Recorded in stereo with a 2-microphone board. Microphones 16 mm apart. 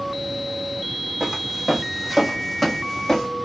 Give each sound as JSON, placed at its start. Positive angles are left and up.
{"t": 1.2, "sound": "footsteps", "side_deg": -30, "distance_m": 1.1}